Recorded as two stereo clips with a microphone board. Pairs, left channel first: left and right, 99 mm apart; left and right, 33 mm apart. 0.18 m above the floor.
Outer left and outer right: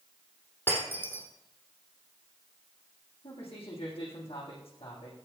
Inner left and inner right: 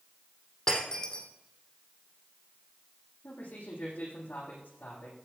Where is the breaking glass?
20° left (ahead or behind), 4 m.